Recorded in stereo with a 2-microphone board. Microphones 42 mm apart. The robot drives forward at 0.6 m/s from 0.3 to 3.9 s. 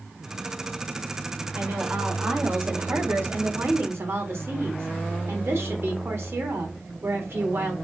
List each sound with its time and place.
1.6 s a woman speaking: 45° right (ahead or behind), 4 m; by 7.7 s 65° right (ahead or behind), 3.5 m